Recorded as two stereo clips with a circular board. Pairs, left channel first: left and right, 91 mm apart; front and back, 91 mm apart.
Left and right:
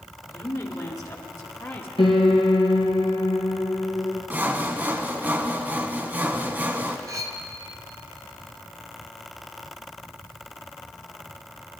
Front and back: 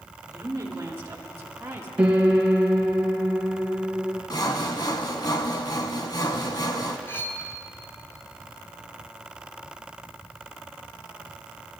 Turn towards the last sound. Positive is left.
turn(degrees=-55)